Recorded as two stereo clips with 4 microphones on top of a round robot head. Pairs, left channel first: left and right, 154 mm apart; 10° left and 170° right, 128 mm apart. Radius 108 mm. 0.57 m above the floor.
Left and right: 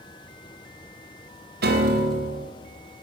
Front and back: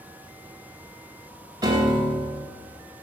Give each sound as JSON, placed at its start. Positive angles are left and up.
{"t": 1.6, "sound": "a piano", "azimuth_deg": -105, "distance_m": 2.0}